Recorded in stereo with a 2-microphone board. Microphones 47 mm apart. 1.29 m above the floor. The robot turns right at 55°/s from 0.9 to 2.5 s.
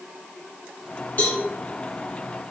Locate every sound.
1.2 s a cowbell: 45° left (ahead or behind), 1.4 m; by 1.4 s 55° left (ahead or behind), 1.4 m